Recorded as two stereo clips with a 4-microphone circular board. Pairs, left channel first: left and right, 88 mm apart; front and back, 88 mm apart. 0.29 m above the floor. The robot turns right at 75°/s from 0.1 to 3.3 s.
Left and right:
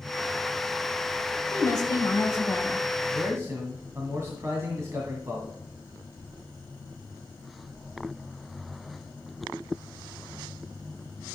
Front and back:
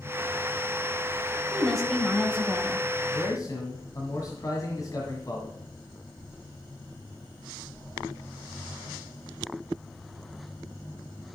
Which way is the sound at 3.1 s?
55° right.